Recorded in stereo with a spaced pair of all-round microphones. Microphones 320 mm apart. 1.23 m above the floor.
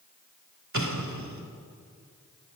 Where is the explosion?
60° right (ahead or behind), 2.5 m.